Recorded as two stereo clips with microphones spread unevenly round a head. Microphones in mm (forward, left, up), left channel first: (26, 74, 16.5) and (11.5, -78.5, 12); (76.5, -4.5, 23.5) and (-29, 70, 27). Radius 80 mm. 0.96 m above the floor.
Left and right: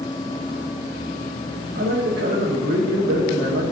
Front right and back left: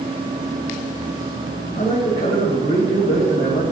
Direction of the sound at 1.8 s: 80° right.